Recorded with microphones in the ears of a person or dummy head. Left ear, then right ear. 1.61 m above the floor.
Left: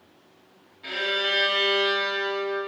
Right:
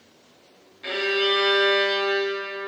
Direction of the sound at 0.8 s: 20° right (ahead or behind).